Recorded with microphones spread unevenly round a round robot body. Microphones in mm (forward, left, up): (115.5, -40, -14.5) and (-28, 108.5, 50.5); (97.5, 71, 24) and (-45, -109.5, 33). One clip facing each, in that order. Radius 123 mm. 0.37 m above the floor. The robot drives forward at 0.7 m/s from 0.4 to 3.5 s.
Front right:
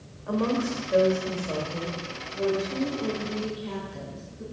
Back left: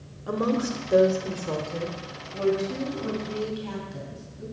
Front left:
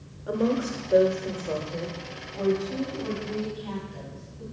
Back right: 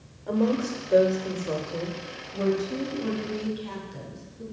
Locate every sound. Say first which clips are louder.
0.3 s a woman speaking: even, back right 1 dB; 120° left, 1.1 m; by 4.4 s 170° left, 2.5 m